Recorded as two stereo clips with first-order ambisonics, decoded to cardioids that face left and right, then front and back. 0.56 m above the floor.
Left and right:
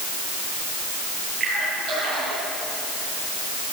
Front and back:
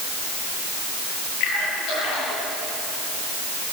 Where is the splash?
20° right, 10 m.